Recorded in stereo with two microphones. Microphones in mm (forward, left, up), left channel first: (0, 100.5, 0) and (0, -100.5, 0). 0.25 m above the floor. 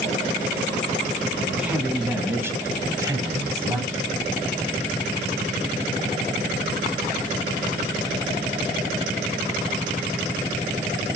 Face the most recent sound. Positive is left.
turn(degrees=-15)  # may be behind; listen again after turning